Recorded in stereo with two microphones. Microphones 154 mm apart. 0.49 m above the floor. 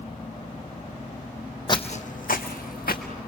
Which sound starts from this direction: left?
Footsteps, at 1.7 s.